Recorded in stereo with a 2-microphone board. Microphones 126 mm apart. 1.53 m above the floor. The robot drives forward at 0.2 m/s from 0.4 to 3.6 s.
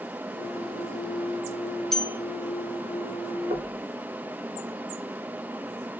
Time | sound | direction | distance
1.9 | a bell | 5° left (ahead or behind) | 0.5 m
3.5 | knocking | 75° right (ahead or behind) | 2.5 m